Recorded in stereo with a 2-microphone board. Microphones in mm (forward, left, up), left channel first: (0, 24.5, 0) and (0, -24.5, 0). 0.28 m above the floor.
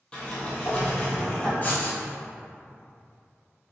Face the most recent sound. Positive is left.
turn(degrees=35)  # may be behind; listen again after turning